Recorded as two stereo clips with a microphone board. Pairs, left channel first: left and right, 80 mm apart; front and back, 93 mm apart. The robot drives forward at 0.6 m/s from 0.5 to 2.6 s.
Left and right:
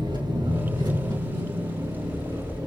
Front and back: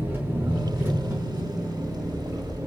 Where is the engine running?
115° right, 4.5 m; by 2.7 s 125° right, 5.5 m.